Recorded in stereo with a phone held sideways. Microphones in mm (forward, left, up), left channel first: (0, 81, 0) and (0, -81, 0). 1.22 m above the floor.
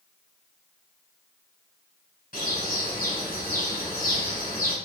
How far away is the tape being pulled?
I don't hear tape being pulled.